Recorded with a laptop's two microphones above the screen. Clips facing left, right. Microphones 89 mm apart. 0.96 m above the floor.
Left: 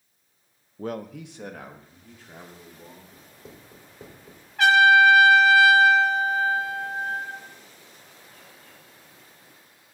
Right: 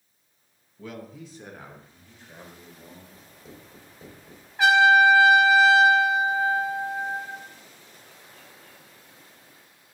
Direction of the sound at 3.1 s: 60° left (ahead or behind).